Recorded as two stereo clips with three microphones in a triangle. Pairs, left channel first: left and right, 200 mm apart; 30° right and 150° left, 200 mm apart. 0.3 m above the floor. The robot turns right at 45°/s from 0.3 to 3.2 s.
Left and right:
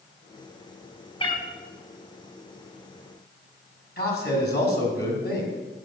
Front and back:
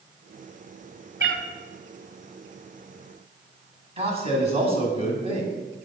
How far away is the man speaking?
About 2 m.